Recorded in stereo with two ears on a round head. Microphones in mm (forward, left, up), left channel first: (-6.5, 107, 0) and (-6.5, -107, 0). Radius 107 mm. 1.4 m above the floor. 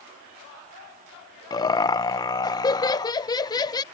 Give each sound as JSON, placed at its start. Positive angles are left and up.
{"t": 1.5, "sound": "laughter", "side_deg": 15}